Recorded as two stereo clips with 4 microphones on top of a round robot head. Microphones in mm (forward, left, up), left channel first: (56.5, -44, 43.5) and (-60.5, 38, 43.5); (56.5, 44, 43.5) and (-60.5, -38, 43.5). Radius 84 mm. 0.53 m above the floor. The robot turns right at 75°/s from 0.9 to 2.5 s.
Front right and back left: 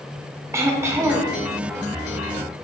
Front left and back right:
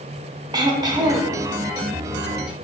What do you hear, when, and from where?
0.5 s throat clearing: 165° right, 0.8 m; by 1.4 s 130° right, 0.8 m